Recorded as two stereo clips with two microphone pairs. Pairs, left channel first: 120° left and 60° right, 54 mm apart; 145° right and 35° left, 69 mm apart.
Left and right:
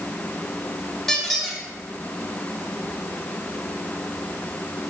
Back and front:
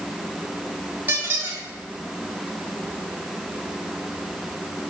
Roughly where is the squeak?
Ahead left.